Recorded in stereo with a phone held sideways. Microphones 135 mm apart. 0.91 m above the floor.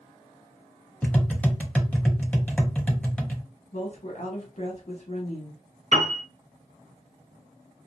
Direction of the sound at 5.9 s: 60° right (ahead or behind).